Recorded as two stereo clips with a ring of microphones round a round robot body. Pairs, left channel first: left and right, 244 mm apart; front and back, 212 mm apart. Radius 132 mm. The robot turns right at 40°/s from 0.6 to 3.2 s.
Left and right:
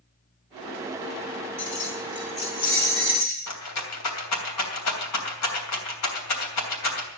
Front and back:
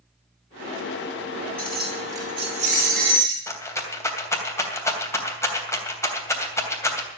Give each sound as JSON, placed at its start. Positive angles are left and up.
{"t": 1.6, "sound": "keys jangling", "azimuth_deg": 85, "distance_m": 5.5}
{"t": 3.5, "sound": "a rattle", "azimuth_deg": 75, "distance_m": 3.0}